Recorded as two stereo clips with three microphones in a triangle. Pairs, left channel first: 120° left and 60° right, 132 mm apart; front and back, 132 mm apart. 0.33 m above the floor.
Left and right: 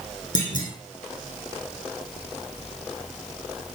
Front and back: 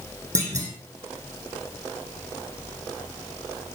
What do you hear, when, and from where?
0.3 s a clunk: 115° left, 4.5 m